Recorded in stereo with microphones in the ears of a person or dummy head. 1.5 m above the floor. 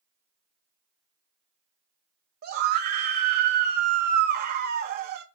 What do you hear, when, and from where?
2.4 s a scream: 50° right (ahead or behind), 0.7 m